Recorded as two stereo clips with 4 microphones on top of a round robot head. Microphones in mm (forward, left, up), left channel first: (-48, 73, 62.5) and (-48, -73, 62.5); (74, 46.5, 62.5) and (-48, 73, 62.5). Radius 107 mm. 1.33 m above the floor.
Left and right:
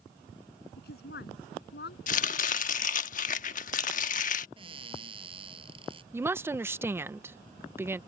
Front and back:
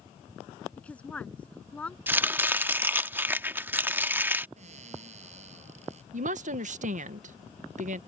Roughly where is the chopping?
Left.